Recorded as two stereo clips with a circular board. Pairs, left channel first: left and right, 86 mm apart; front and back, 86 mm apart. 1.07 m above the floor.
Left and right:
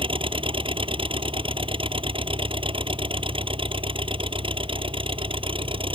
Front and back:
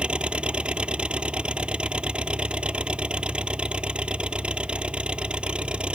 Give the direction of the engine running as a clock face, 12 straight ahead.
3 o'clock.